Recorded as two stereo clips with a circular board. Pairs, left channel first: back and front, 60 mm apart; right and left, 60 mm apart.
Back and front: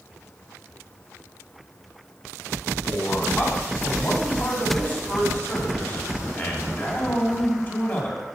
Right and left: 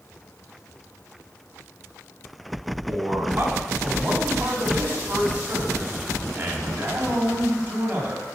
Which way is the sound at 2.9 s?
140° left.